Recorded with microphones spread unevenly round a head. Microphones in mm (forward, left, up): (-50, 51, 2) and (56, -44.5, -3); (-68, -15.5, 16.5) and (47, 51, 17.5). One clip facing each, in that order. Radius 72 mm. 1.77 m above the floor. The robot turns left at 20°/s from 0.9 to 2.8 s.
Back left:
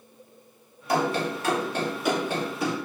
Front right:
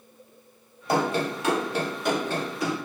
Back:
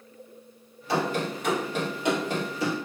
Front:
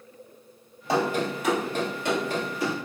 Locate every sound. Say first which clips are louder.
0.9 s running footsteps: even, front 2 dB; 10° right, 2.0 m; by 2.9 s 160° left, 2 m